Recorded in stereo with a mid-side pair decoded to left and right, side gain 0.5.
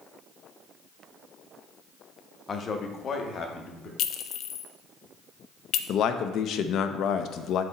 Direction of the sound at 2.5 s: 40° left.